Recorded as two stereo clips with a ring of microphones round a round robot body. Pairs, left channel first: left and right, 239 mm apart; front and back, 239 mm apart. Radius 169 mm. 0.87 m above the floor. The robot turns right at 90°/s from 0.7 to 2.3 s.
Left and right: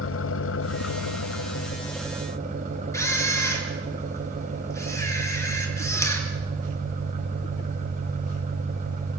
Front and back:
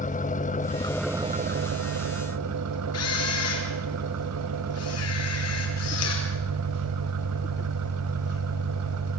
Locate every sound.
0.0 s an engine running: 60° left, 0.8 m; by 9.2 s 155° right, 0.8 m
2.9 s a camera shutter: 10° left, 4.5 m